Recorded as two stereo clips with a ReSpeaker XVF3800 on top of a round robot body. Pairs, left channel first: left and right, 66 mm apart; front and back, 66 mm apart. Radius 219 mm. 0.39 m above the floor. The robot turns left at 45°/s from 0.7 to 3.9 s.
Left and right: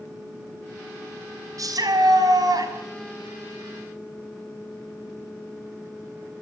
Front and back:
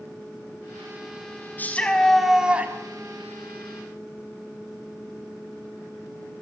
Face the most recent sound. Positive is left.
turn(degrees=-165)